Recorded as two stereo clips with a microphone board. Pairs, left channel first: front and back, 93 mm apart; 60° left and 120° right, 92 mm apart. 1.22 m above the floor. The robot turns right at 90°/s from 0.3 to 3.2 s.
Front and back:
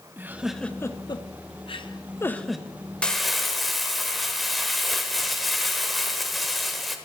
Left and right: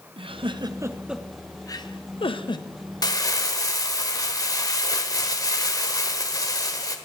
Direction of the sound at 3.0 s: 75° left.